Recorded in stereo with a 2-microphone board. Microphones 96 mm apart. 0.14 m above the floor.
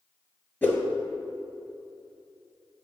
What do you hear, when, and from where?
0.6 s a whoosh: 20° left (ahead or behind), 1.1 m